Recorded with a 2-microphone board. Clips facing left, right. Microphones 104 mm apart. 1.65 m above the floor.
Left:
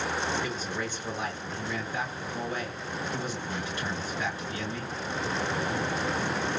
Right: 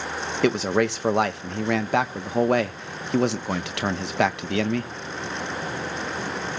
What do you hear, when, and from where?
0.4 s a man speaking: 75° right (ahead or behind), 1.6 m